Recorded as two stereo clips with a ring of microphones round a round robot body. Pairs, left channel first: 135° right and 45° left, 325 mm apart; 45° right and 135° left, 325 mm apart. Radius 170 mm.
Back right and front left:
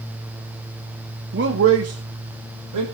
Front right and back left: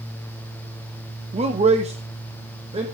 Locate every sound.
1.3 s a man speaking: 75° left, 1.1 m; by 2.9 s 65° left, 1.8 m